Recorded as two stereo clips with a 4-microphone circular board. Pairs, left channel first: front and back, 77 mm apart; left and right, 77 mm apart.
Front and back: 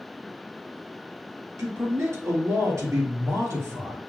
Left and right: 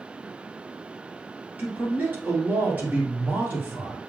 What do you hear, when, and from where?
1.6 s a man speaking: 150° right, 2.5 m